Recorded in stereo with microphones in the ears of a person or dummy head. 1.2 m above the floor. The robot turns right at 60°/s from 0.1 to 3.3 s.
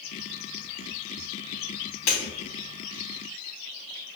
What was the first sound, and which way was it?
Breaking glass, 40° left (ahead or behind).